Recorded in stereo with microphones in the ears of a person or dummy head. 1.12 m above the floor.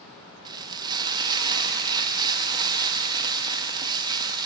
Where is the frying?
20° right (ahead or behind), 0.6 m.